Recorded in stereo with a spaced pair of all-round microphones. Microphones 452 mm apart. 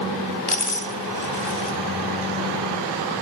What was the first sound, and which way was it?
A dropped coin, 55° left (ahead or behind).